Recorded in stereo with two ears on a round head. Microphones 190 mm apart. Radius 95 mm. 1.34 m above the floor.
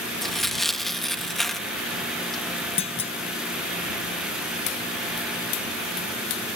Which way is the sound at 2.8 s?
30° left (ahead or behind).